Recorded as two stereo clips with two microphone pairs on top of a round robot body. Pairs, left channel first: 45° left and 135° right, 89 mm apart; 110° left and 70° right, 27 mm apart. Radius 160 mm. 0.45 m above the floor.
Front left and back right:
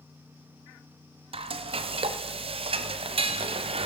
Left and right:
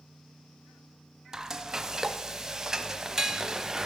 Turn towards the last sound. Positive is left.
turn(degrees=-145)